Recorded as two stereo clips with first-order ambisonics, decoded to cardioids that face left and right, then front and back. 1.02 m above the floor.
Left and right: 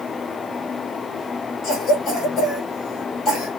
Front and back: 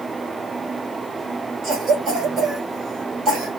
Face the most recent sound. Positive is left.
turn(degrees=140)